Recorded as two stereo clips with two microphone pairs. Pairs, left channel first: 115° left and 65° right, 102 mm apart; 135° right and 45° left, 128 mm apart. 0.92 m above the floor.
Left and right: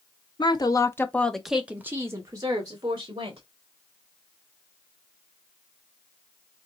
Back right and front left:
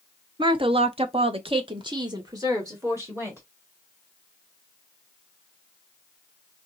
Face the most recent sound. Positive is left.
turn(degrees=-25)